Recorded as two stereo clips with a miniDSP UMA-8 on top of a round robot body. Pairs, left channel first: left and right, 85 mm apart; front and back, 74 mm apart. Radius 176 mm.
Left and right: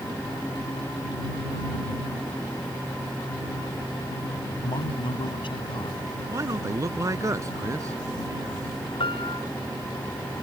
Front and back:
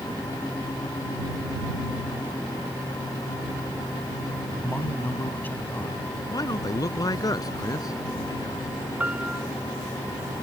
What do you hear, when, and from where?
4.6 s a man speaking: 65° left
6.3 s a man speaking: 35° right
9.0 s a piano: 110° left